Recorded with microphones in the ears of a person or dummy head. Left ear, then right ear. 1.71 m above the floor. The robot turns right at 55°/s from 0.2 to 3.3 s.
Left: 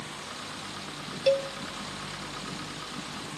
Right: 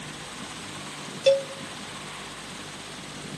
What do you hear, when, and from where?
1.3 s a cowbell: 10° right (ahead or behind), 0.6 m; by 1.5 s 25° right (ahead or behind), 0.6 m